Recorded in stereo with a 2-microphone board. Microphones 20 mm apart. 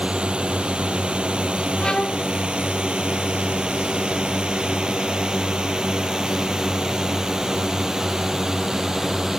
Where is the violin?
50° left (ahead or behind).